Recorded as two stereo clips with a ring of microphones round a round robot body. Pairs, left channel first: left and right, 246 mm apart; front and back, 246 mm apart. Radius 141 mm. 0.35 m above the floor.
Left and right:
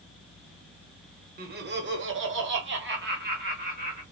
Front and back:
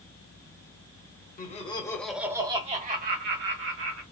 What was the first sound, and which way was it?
Laughter, 50° right.